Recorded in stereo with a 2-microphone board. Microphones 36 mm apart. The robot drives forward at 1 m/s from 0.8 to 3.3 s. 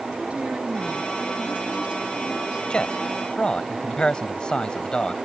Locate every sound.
0.3 s a woman speaking: 40° right (ahead or behind); by 2.6 s 30° right (ahead or behind)
2.7 s a man speaking: 30° left (ahead or behind); by 5.2 s 25° left (ahead or behind)